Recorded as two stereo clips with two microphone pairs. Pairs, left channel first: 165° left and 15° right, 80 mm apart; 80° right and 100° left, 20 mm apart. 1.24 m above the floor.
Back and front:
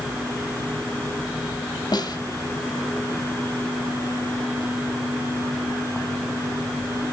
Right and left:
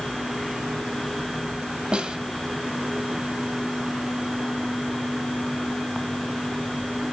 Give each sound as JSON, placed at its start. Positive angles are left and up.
{"t": 1.9, "sound": "a snare drum", "azimuth_deg": 145, "distance_m": 2.5}